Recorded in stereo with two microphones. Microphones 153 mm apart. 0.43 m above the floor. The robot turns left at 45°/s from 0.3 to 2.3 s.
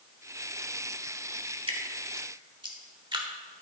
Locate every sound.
1.7 s dripping: 40° right (ahead or behind), 1.2 m; by 3.6 s 30° right (ahead or behind), 1.2 m